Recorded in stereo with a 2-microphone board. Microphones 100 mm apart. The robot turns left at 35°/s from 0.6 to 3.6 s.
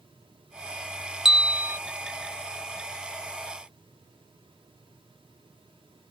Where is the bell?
5° right (ahead or behind); by 1.8 s 25° right (ahead or behind).